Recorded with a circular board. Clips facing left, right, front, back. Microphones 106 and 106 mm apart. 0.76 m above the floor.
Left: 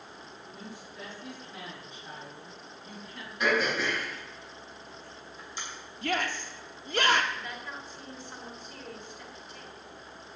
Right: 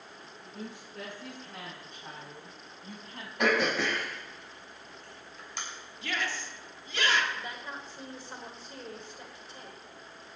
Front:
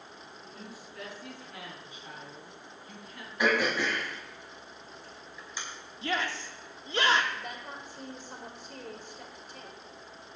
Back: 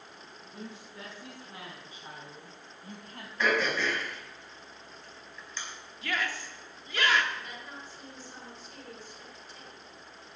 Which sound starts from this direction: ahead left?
A shout, at 6.0 s.